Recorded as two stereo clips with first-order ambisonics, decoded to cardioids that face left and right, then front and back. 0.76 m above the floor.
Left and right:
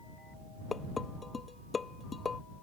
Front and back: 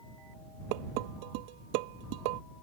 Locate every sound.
0.7 s dishes clattering: 165° left